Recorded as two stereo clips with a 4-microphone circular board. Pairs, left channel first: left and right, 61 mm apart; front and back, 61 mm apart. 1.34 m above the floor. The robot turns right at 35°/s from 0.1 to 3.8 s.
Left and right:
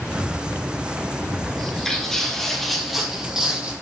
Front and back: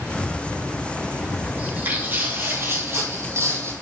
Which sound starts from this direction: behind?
Footsteps, at 1.6 s.